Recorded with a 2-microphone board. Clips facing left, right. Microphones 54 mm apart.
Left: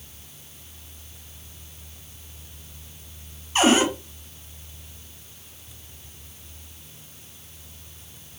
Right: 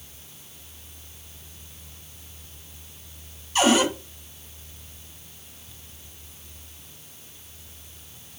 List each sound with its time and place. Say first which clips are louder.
3.5 s a cupboard door: left 1 dB; 30° left (ahead or behind), 1.4 m